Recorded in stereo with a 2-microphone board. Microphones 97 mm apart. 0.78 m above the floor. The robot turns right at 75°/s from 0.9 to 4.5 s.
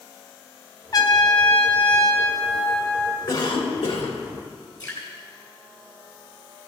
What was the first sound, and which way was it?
A trumpet, 50° left.